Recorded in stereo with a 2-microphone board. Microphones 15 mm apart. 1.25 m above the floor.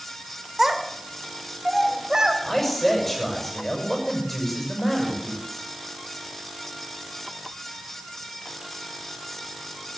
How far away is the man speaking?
About 6 m.